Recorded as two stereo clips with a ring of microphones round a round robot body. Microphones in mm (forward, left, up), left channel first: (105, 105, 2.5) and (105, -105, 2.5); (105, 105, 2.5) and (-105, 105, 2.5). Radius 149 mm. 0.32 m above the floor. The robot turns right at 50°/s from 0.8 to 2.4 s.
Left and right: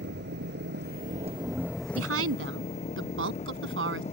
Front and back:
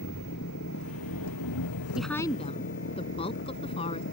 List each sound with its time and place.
0.0 s an engine running: 50° right; by 4.1 s 30° left
1.9 s a woman speaking: 95° right; by 4.0 s 70° right